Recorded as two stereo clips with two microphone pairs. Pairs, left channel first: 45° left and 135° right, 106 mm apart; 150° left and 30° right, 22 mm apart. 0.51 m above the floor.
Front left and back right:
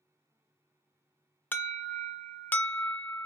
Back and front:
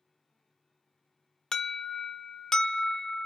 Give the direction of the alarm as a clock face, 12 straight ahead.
9 o'clock.